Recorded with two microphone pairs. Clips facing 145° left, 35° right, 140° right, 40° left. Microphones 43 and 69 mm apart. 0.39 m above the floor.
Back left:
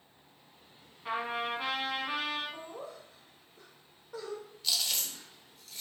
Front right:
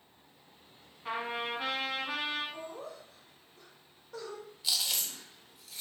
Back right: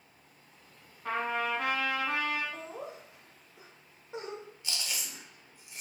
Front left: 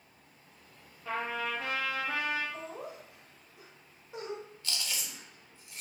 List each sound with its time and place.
1.1 s a trumpet: 130° right, 0.8 m
2.5 s laughter: 150° right, 0.8 m
4.6 s chewing: 100° right, 0.6 m